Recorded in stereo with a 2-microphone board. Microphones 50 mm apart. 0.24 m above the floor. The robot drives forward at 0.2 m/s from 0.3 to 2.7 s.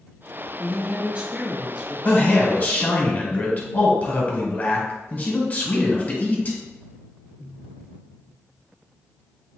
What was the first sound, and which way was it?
A woman speaking, 30° right (ahead or behind).